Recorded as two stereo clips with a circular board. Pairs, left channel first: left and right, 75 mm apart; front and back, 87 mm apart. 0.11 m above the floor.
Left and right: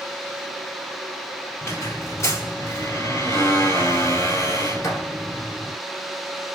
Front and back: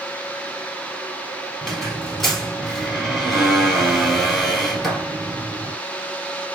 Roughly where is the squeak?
Left.